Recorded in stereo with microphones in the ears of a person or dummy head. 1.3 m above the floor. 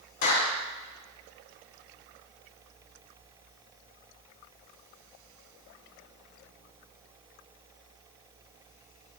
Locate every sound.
0.2 s a clap: 60° left (ahead or behind), 3.5 m